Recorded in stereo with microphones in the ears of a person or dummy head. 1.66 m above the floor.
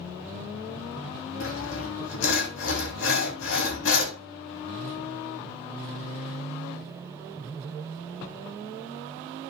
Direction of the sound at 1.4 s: 70° left (ahead or behind).